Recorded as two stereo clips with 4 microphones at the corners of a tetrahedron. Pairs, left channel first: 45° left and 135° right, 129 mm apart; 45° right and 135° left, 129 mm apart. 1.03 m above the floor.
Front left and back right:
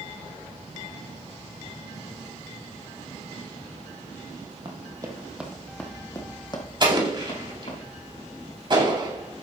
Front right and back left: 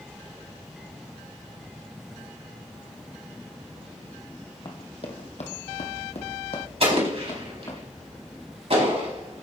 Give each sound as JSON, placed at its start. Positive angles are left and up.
{"t": 4.7, "sound": "running footsteps", "azimuth_deg": -95, "distance_m": 2.0}
{"t": 6.8, "sound": "an explosion", "azimuth_deg": 175, "distance_m": 4.0}